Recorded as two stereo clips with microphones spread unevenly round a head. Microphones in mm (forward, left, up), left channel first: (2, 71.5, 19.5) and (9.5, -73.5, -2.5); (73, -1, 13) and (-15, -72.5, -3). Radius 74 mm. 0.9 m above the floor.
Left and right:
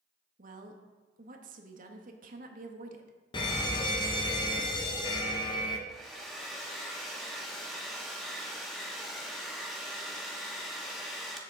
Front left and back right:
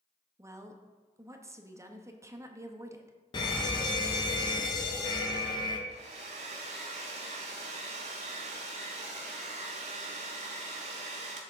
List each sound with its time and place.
0.4 s a woman speaking: 85° right, 1.3 m
3.3 s a fire alarm: 50° left, 1.4 m
5.9 s a hair dryer: 175° right, 1.4 m